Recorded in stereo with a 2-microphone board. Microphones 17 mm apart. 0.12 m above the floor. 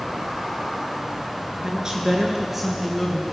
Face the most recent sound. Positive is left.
turn(degrees=15)  # may be behind; listen again after turning